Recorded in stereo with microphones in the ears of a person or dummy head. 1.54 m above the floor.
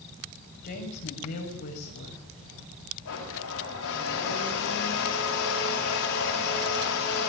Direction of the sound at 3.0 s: 75° left (ahead or behind).